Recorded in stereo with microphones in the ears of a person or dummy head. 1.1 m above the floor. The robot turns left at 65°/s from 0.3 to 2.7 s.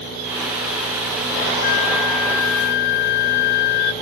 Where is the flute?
135° left, 0.7 m; by 3.9 s 65° left, 0.7 m.